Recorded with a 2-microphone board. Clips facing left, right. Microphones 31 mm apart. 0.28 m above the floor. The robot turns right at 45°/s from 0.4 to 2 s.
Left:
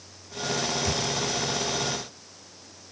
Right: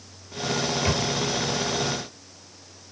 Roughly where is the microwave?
Right.